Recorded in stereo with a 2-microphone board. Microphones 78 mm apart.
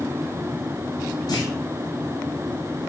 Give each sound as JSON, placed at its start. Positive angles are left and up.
{"t": 1.3, "sound": "a clunk", "side_deg": 55, "distance_m": 5.0}